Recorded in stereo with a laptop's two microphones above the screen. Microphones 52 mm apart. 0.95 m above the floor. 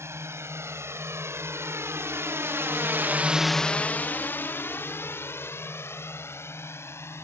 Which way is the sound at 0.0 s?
60° right (ahead or behind).